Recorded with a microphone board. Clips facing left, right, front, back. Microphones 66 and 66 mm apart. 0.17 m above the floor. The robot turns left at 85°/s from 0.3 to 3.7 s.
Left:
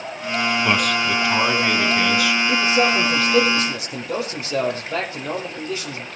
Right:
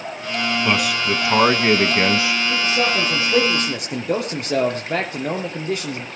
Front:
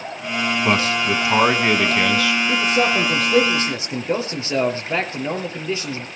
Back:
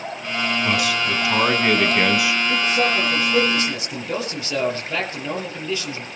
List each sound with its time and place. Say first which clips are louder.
0.7 s a man speaking: even, front 5 dB; 10° left, 1.2 m; by 2.4 s 140° right, 1.2 m
2.5 s a man speaking: left 3 dB, front 2 dB; 40° left, 4 m; by 6.1 s 65° right, 4 m